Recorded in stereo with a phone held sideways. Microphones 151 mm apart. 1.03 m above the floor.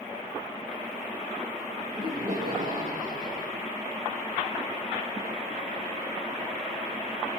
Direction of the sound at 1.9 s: 80° right.